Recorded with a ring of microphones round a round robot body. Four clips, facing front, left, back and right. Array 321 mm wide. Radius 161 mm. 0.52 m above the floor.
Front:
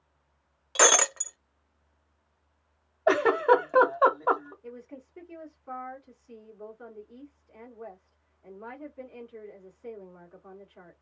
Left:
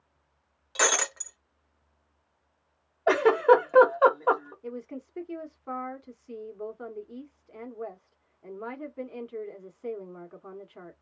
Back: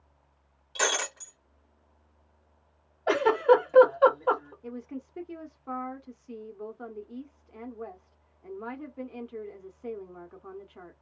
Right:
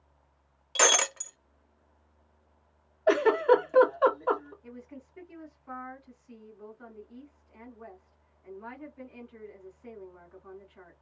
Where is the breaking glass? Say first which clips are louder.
Right 1 dB, front 7 dB; 10° right, 0.6 m.